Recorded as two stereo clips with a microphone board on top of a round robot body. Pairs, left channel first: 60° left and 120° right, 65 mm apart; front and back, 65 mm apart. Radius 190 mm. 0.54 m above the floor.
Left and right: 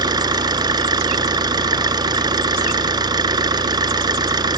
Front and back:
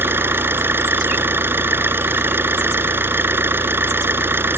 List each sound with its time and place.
0.0 s an engine running: 125° right